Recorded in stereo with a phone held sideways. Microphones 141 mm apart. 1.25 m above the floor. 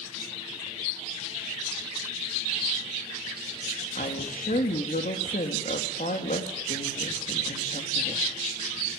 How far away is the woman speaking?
About 2.5 m.